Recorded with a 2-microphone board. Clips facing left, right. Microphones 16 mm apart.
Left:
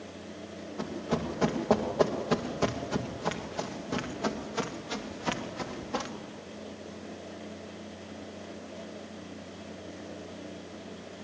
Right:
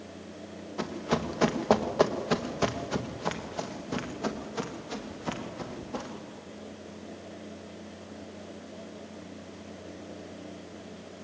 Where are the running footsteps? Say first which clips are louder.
Right 2 dB; 45° right (ahead or behind), 2.5 m; by 6.1 s 30° left (ahead or behind), 3 m.